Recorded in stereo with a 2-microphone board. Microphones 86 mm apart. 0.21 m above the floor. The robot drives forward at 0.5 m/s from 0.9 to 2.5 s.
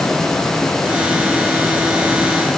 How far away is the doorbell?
No doorbell in this recording.